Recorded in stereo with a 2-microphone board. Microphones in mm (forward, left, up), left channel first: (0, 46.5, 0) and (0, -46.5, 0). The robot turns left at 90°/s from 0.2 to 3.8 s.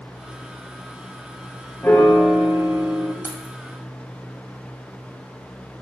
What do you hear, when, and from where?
1.8 s a piano: 45° left, 1.0 m; by 3.1 s 75° right, 1.0 m
3.2 s keys jangling: 25° right (ahead or behind), 1.5 m; by 3.5 s 50° right (ahead or behind), 1.5 m